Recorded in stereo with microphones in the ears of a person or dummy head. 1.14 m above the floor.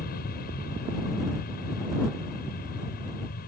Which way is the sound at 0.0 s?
45° left (ahead or behind).